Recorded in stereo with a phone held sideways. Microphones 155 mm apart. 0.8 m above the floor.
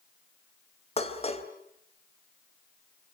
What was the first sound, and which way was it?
Dishes clattering, 40° left (ahead or behind).